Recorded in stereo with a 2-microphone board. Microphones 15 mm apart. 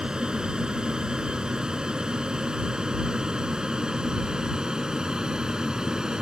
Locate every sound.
0.0 s an aircraft: 60° right (ahead or behind); by 6.2 s 50° right (ahead or behind)